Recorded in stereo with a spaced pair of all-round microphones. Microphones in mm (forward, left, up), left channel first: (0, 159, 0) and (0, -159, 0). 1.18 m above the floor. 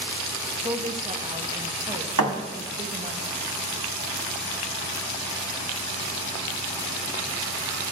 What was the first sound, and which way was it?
A woman speaking, 20° right (ahead or behind).